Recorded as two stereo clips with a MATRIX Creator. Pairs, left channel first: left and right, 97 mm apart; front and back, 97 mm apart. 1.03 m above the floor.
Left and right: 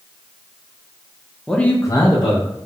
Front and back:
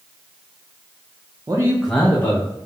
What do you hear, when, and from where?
1.5 s a man speaking: 175° left, 0.6 m; by 2.5 s 55° left, 0.9 m